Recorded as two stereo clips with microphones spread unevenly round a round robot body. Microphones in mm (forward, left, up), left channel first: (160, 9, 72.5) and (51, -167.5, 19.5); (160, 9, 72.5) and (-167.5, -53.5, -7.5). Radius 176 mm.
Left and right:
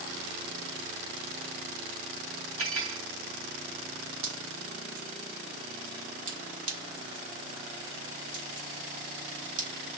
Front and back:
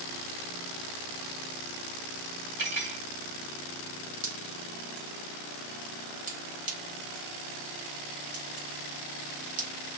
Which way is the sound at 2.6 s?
110° right.